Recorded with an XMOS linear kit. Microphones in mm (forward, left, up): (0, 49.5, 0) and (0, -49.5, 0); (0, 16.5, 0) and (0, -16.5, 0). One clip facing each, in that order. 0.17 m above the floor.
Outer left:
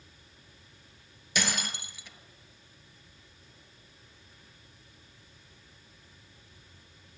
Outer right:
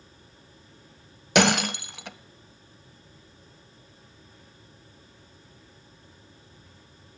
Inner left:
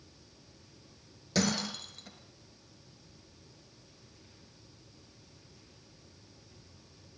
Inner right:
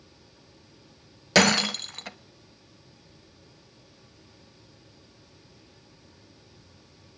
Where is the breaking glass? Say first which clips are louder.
Outer right 13 dB, inner right 11 dB; 70° right (ahead or behind), 0.7 m.